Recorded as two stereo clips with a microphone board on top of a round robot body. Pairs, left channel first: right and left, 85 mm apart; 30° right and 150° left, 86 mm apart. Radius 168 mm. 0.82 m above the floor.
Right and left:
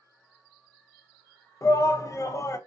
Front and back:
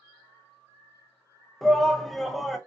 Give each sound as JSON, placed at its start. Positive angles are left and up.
{"t": 1.6, "sound": "a shout", "azimuth_deg": -115, "distance_m": 0.6}